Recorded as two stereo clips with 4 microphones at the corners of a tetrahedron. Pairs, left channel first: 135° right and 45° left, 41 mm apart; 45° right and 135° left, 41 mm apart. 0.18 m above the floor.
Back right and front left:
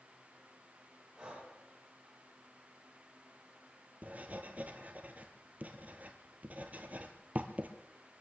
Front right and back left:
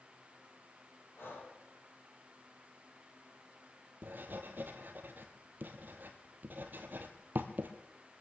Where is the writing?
95° left, 1.7 m.